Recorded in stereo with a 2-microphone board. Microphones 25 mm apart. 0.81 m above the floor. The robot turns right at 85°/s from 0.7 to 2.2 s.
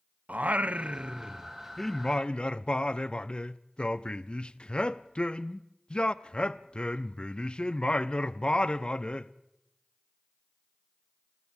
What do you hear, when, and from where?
0.3 s singing: 90° right, 0.5 m; by 9.3 s 40° left, 0.5 m